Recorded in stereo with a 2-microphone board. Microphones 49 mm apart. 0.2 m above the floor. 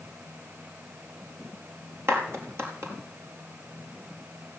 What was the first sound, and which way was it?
A clap, 65° right (ahead or behind).